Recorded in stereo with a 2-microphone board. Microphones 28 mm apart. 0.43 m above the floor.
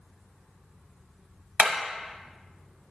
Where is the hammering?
65° right (ahead or behind), 1.0 m.